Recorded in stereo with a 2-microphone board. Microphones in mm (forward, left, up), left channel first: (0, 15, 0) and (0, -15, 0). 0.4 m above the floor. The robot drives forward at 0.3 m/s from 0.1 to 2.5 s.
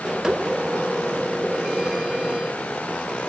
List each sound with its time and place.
Only background noise.